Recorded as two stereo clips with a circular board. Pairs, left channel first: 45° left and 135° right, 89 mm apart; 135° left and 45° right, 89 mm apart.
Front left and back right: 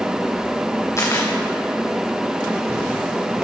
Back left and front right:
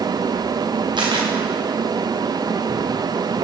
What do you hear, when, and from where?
1.0 s a camera shutter: 10° right, 2.5 m